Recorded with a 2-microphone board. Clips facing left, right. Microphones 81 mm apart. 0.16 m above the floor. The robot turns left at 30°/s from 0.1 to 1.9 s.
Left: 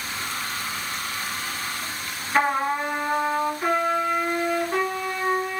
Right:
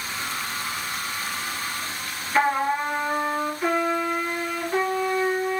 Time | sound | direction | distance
2.3 | a trumpet | 35° left (ahead or behind) | 2.5 m